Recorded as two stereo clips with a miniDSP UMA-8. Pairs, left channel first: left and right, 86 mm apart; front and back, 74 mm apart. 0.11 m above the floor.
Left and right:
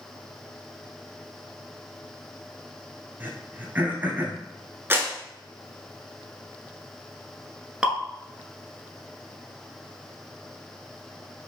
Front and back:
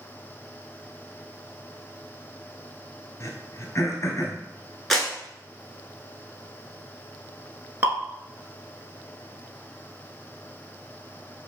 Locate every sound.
3.2 s throat clearing: 30° right, 0.8 m
4.9 s a clap: 80° right, 0.9 m
7.8 s dripping: 160° right, 0.7 m